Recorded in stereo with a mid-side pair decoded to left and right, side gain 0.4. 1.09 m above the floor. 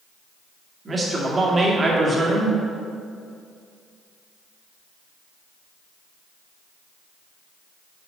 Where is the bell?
No bell in this recording.